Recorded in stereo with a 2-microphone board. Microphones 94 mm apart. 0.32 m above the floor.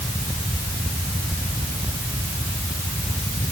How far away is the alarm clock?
No alarm clock in this recording.